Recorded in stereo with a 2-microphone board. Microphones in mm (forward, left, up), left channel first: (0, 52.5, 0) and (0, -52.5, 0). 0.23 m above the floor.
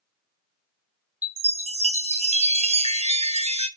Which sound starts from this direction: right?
A chime, at 1.2 s.